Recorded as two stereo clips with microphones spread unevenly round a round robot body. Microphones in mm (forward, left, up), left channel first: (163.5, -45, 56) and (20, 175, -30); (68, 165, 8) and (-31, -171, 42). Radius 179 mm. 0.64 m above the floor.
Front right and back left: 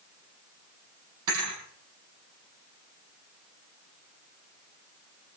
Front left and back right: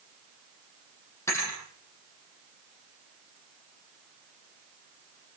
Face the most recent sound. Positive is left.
turn(degrees=155)